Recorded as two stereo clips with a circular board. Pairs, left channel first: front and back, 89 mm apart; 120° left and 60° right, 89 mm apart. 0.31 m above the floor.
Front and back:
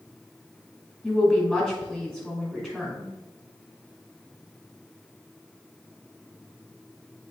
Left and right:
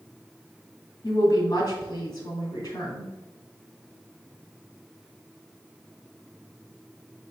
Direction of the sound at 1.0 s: 80° left.